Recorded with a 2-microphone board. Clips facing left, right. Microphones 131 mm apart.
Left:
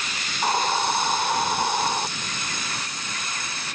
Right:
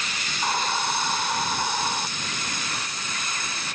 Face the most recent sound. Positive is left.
turn(degrees=25)  # may be behind; listen again after turning